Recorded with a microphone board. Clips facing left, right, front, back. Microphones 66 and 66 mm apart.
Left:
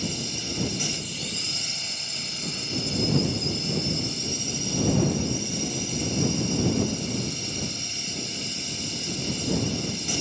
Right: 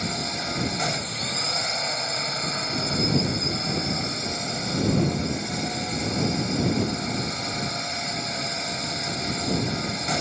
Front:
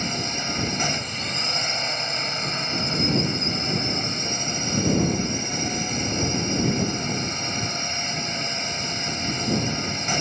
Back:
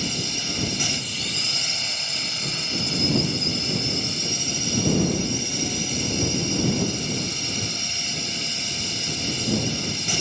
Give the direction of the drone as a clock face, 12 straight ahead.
2 o'clock.